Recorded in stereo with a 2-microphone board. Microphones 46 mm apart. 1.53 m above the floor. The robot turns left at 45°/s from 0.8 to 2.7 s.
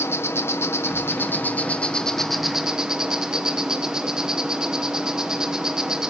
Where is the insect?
70° left, 1.3 m; by 6.1 s 15° right, 1.3 m.